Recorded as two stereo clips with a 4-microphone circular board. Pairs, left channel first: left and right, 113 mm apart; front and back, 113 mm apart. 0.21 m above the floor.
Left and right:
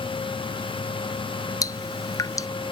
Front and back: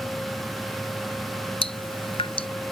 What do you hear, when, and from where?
1.6 s dripping: 35° left